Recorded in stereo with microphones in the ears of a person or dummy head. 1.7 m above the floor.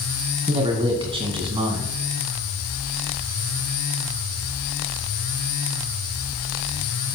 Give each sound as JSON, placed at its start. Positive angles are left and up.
{"t": 0.5, "sound": "a man speaking", "side_deg": -30, "distance_m": 2.5}